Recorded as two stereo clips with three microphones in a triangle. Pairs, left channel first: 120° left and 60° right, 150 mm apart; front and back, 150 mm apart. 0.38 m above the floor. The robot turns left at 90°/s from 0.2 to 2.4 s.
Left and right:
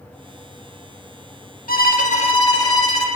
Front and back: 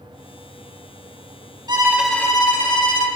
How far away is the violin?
About 0.6 m.